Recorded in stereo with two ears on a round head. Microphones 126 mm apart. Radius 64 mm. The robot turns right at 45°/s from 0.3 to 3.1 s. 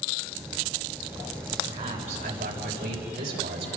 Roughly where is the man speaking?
Behind right.